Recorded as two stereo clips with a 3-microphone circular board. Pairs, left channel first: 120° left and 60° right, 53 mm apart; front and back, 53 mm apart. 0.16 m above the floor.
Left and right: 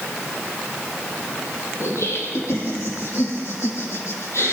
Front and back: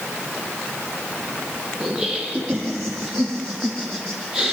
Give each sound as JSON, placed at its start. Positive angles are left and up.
{"t": 1.8, "sound": "laughter", "azimuth_deg": 100, "distance_m": 4.5}